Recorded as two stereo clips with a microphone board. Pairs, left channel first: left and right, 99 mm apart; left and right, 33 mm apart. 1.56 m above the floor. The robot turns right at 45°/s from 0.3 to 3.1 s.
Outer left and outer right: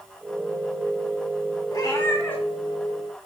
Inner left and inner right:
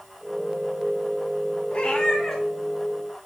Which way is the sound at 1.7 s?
130° left.